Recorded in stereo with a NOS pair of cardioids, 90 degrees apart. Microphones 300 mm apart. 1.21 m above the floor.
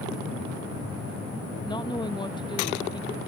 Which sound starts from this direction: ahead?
A woman speaking, at 1.6 s.